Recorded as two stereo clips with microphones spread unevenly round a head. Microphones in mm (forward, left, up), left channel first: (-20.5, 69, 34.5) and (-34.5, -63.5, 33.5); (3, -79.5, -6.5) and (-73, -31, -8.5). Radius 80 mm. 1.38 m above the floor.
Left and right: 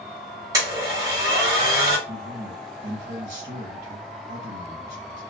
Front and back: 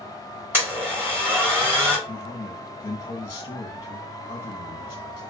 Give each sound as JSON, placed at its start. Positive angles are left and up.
{"t": 0.5, "sound": "a blender", "azimuth_deg": -155, "distance_m": 1.6}
{"t": 2.1, "sound": "a man speaking", "azimuth_deg": -60, "distance_m": 1.1}